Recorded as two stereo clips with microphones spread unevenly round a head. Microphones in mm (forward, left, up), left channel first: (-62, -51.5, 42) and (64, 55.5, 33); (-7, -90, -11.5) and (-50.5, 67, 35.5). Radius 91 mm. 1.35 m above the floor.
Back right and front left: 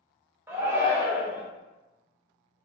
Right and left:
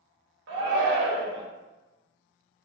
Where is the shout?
115° left, 0.7 m.